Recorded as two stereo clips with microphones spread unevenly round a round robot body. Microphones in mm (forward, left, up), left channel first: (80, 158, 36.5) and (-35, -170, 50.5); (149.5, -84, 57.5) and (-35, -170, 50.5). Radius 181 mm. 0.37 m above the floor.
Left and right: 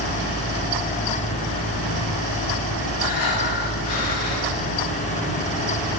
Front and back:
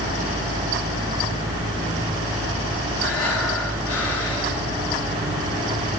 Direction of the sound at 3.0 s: 55° left.